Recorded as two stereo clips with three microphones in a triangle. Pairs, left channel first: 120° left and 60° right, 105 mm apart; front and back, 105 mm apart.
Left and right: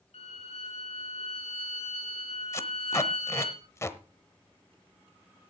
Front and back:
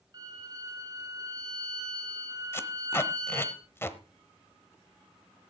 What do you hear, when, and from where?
0.1 s a violin: 125° left, 5.5 m
2.5 s tape being pulled: 60° left, 0.9 m